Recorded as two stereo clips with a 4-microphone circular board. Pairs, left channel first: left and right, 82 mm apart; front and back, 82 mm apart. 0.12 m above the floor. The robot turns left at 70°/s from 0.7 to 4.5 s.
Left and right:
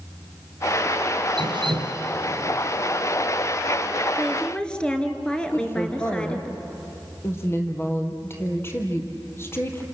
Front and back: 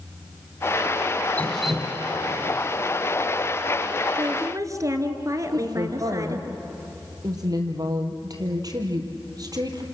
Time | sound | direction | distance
1.4 | dripping | 70° right | 2.5 m
4.2 | a woman speaking | 175° right | 2 m
5.5 | a woman speaking | 145° left | 3.5 m